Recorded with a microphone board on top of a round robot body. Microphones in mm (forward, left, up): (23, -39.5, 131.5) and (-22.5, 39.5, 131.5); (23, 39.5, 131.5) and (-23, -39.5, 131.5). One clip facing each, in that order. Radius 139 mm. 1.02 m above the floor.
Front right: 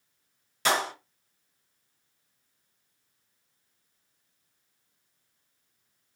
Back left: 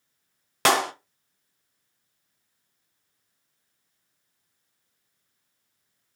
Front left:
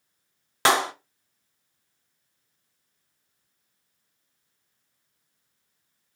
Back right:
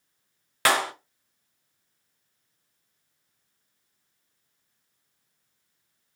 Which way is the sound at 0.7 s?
125° left.